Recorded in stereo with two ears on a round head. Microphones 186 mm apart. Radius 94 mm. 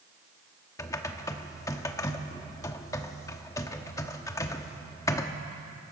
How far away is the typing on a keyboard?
About 1.0 m.